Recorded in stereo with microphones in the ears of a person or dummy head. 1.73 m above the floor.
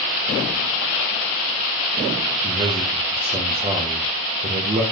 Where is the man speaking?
30° right (ahead or behind), 0.6 m.